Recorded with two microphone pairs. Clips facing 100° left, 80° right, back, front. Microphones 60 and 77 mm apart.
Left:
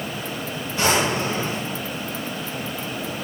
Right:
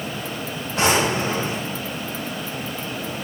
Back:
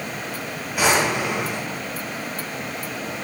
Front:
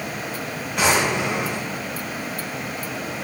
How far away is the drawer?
About 2.5 m.